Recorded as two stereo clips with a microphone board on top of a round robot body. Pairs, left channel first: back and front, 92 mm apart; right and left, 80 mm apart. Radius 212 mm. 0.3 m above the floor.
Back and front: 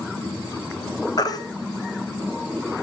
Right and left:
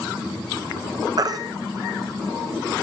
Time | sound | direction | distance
1.2 | a baby crying | 130° left | 1.4 m